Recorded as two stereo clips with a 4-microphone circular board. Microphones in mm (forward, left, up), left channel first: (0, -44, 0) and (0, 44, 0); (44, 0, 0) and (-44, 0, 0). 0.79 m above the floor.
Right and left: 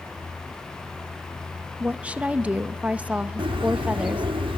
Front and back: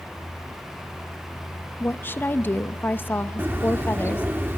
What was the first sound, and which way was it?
A woman speaking, 30° left.